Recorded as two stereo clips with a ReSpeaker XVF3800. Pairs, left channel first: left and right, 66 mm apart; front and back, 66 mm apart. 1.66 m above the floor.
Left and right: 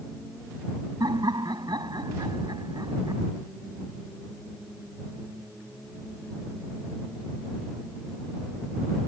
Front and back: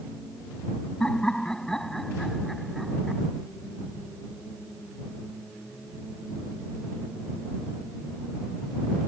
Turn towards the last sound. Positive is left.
turn(degrees=-90)